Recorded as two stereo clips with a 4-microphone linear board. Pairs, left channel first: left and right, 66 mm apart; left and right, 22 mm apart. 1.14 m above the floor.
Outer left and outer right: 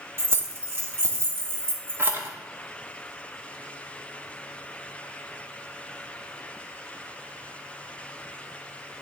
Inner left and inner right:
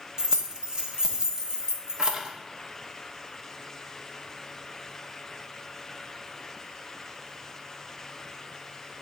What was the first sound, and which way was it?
Keys jangling, 35° right (ahead or behind).